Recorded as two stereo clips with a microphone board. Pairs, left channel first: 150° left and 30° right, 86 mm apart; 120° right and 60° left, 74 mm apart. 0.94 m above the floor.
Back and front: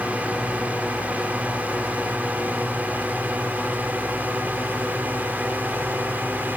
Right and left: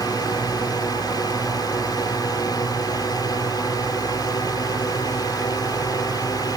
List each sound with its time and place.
0.0 s a drone: 105° right; by 6.6 s 100° right